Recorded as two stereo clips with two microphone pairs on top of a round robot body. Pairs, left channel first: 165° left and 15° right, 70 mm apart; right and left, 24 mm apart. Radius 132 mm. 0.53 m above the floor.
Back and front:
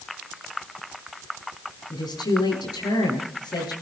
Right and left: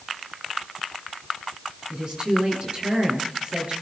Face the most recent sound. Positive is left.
turn(degrees=140)